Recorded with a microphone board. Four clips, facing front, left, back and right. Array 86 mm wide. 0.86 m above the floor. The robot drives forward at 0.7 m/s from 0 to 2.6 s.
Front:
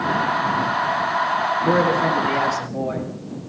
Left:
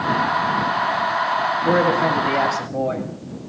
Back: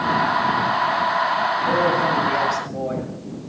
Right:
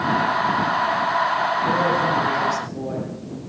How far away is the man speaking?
About 1.5 m.